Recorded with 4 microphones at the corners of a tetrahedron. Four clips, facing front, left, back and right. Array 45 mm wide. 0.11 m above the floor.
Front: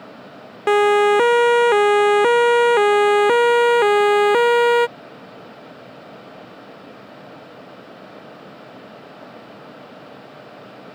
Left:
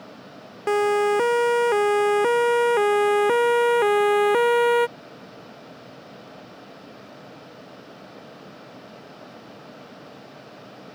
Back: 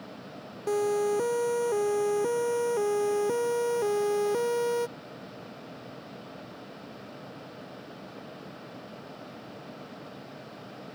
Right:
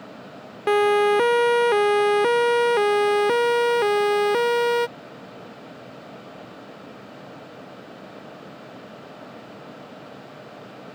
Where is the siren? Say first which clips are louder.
Right 2 dB, front 13 dB; 5° right; by 4.9 s 15° left.